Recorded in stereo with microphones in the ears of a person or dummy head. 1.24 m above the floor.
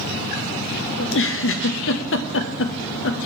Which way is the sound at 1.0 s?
60° left (ahead or behind).